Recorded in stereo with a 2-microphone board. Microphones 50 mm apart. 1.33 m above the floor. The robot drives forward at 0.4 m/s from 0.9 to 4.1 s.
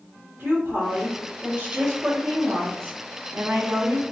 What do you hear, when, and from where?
0.4 s a woman speaking: 40° right (ahead or behind), 1.1 m; by 4.0 s 60° right (ahead or behind), 0.8 m